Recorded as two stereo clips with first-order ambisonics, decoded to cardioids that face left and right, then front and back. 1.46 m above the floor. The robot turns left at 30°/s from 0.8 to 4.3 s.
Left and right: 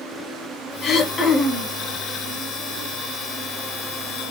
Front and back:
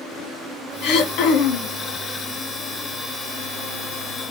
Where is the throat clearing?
35° left, 0.5 m; by 1.7 s 5° left, 0.5 m.